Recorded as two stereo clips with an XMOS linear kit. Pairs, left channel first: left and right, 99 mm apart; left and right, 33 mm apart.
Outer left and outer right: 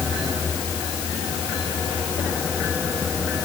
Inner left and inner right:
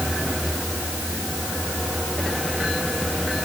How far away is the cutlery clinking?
I don't hear cutlery clinking.